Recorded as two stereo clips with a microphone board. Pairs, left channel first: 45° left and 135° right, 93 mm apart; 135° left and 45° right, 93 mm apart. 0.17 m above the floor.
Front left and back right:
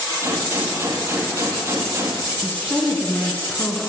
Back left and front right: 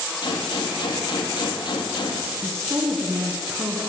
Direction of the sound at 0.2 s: 165° left.